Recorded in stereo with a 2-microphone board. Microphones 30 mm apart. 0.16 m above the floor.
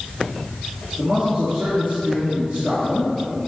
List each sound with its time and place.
1.0 s a man speaking: 55° right (ahead or behind), 2 m